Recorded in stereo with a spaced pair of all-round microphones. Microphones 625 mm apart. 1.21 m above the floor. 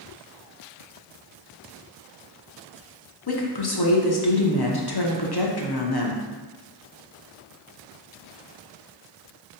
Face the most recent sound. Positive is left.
turn(degrees=40)  # may be behind; listen again after turning